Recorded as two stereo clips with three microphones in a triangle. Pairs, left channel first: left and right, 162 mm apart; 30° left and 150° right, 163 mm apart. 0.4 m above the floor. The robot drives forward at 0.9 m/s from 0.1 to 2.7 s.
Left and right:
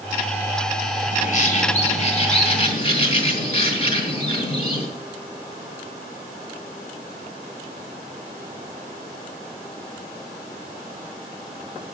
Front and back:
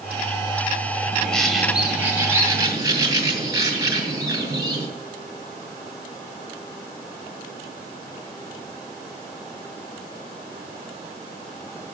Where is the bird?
105° left, 1.7 m; by 4.9 s 145° left, 2.5 m.